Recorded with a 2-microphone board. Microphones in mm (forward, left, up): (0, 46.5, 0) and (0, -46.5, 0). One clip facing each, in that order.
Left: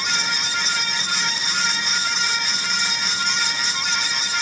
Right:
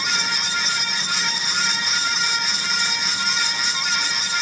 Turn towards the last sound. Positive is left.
No sound to turn to.